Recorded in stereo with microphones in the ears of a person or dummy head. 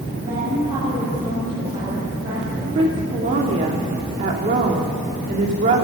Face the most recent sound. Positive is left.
turn(degrees=-40)  # may be behind; listen again after turning